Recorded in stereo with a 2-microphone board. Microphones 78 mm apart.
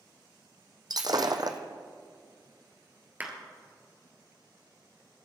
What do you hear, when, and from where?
0.9 s breaking glass: 55° right (ahead or behind), 1.0 m
3.2 s a clap: 20° right (ahead or behind), 2 m